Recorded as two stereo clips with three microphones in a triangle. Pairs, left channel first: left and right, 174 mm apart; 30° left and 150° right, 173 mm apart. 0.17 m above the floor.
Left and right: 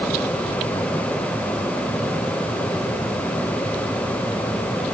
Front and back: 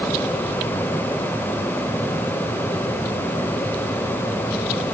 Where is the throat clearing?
No throat clearing in this recording.